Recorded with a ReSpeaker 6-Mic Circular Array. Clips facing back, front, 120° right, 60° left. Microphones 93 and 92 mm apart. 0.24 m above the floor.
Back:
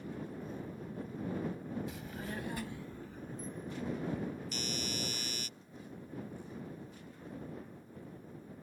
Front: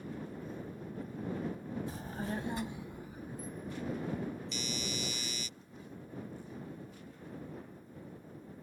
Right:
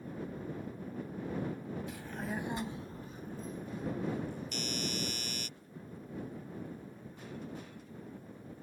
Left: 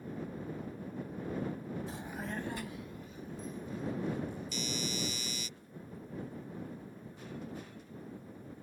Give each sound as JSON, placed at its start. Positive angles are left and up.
{"t": 1.9, "sound": "a child speaking", "azimuth_deg": 30}
{"t": 4.5, "sound": "a doorbell", "azimuth_deg": -150}